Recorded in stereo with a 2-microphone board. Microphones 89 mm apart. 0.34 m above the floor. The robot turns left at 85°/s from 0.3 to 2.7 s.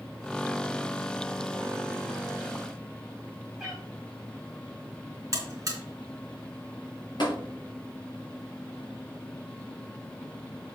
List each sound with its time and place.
3.6 s a cat meowing: centre (ahead or behind), 5 m
5.3 s a buzzer: 40° right (ahead or behind), 3.5 m
7.2 s tapping: 65° left (ahead or behind), 5 m